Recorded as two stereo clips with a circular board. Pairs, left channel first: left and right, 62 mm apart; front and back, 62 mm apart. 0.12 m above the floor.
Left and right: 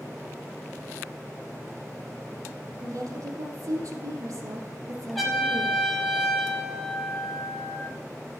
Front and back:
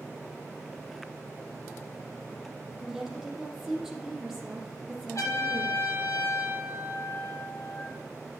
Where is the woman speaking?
95° right, 4 m.